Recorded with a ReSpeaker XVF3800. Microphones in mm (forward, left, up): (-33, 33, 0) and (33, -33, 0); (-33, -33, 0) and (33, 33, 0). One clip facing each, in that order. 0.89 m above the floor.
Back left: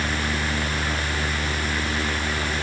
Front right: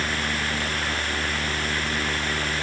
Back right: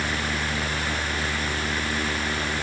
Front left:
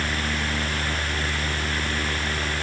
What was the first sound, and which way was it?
Only background noise.